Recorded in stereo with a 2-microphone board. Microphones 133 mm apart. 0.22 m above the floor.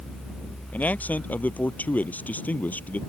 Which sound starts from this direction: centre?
A man speaking, at 0.7 s.